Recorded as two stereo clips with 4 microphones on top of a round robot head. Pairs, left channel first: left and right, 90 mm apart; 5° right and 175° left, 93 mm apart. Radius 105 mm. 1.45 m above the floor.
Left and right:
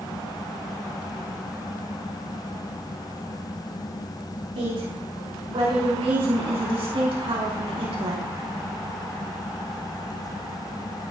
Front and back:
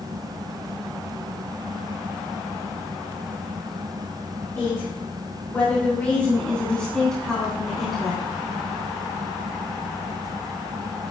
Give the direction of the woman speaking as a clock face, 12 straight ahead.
2 o'clock.